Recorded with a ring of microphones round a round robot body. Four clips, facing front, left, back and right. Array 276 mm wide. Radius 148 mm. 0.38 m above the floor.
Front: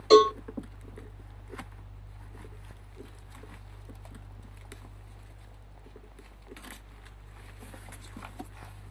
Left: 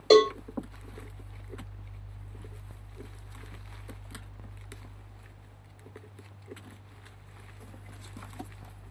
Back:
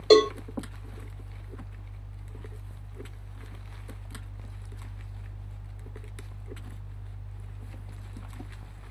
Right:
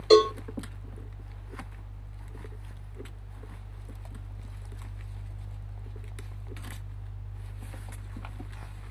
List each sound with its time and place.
0.1 s a cowbell: 145° left, 2 m